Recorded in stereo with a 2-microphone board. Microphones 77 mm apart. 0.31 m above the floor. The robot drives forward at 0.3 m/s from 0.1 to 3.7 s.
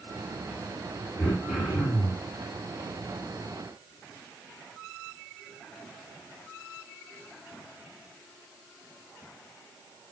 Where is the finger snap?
No finger snap in this recording.